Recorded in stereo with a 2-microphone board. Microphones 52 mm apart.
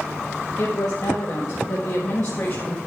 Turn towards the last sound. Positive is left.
turn(degrees=45)  # may be behind; listen again after turning